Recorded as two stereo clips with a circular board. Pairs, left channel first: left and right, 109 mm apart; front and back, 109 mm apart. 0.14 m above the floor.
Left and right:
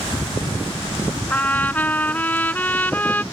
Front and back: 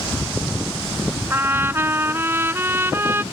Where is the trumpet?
145° left.